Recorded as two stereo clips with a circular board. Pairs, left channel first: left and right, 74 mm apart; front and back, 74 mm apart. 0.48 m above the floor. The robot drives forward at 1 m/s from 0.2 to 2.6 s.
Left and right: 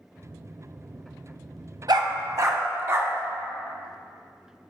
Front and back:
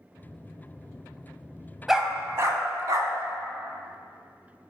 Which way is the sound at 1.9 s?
95° right.